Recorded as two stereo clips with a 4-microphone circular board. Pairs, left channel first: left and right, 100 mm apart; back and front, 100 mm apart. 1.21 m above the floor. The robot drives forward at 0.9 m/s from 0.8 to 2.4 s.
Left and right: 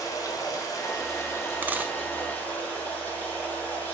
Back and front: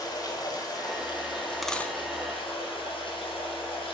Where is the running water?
140° left, 1.5 m; by 3.9 s 160° left, 2.5 m.